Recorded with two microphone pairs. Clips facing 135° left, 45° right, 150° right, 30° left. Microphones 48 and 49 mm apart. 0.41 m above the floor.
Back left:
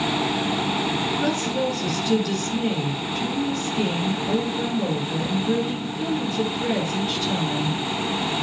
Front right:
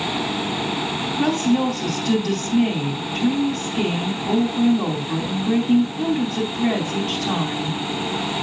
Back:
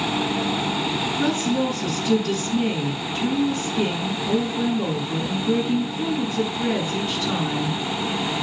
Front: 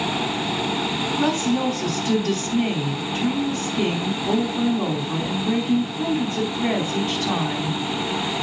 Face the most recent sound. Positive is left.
turn(degrees=-20)